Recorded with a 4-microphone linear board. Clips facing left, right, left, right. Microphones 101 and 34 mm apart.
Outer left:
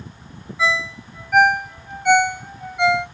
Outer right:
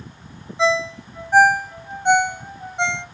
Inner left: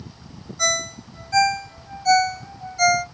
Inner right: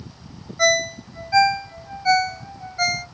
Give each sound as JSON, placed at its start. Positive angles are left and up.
{"t": 0.6, "sound": "a ringtone", "side_deg": -30, "distance_m": 0.8}